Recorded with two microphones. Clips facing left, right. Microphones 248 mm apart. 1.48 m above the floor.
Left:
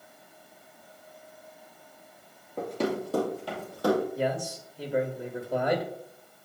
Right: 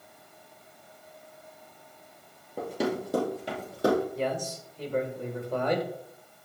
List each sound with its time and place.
2.6 s running footsteps: 5° right (ahead or behind), 2.5 m; by 4.0 s 25° right (ahead or behind), 3.5 m
4.2 s a man speaking: 10° left (ahead or behind), 1.5 m